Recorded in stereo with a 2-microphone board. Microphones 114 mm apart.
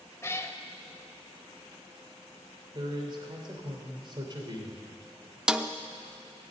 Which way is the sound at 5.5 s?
10° right (ahead or behind).